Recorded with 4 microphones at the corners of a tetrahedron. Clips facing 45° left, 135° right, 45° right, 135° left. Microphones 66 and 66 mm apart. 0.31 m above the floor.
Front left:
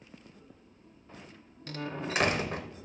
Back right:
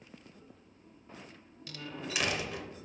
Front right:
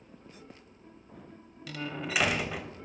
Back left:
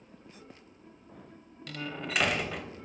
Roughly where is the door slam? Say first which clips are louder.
Front left 6 dB, front right 1 dB; ahead left.